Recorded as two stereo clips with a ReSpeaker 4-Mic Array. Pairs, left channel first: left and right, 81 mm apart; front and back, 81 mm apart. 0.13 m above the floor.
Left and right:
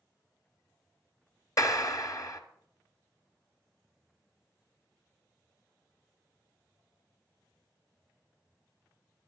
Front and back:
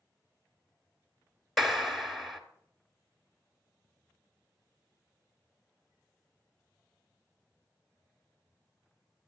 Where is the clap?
85° left, 1.8 m.